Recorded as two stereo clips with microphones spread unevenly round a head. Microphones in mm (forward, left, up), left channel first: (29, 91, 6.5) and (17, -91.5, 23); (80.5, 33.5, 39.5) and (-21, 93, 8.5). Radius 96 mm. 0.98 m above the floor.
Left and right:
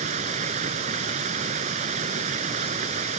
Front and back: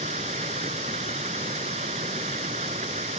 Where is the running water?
150° right.